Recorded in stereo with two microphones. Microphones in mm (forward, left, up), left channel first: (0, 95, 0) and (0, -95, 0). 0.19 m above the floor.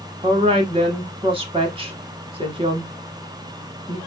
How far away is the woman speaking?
About 1.2 m.